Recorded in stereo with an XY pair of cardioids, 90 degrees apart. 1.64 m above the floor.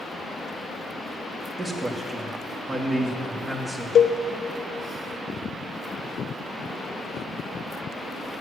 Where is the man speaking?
25° right, 2 m.